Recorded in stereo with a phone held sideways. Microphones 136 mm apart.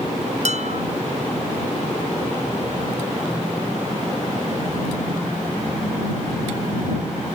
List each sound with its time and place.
0.5 s dishes clattering: 60° right (ahead or behind)